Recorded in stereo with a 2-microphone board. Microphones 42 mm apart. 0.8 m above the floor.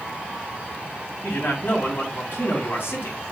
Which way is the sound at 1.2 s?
60° left (ahead or behind).